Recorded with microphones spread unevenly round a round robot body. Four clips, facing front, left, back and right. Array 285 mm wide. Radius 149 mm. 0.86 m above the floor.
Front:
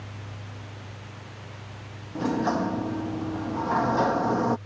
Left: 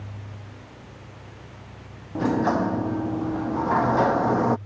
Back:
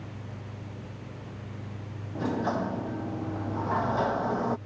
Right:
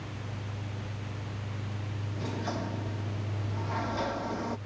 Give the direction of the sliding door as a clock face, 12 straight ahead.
10 o'clock.